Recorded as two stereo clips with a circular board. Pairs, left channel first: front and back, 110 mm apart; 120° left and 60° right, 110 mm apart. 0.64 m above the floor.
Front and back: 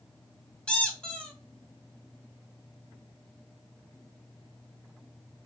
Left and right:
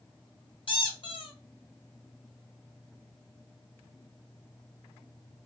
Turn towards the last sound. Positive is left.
turn(degrees=80)